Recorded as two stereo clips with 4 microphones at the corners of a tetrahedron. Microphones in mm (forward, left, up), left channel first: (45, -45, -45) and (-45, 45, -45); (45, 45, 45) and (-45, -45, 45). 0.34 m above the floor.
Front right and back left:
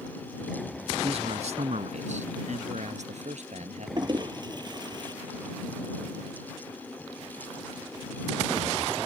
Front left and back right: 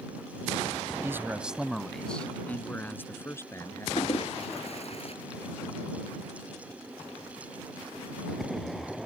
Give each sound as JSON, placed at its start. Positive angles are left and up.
{"t": 1.0, "sound": "a man speaking", "azimuth_deg": 160}
{"t": 4.0, "sound": "a toilet flushing", "azimuth_deg": 80}